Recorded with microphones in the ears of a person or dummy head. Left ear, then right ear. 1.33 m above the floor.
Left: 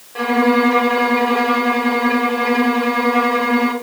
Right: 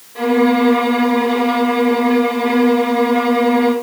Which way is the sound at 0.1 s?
60° left (ahead or behind).